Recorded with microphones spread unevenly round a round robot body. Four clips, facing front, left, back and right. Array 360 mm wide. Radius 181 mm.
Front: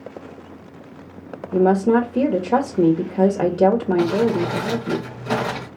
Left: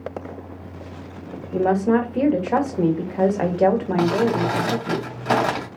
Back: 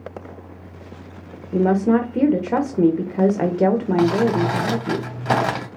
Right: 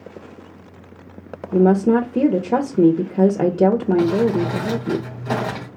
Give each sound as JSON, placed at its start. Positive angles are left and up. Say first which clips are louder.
{"t": 1.5, "sound": "a woman speaking", "louder": "right 4 dB, front 1 dB", "azimuth_deg": -90, "distance_m": 1.0}
{"t": 4.0, "sound": "crumpling", "louder": "right 2 dB, back 1 dB", "azimuth_deg": 150, "distance_m": 2.0}